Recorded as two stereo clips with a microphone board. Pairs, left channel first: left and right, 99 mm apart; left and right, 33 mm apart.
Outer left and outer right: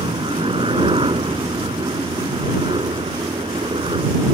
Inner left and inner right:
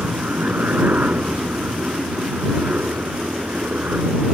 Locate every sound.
0.0 s a helicopter: 65° right (ahead or behind)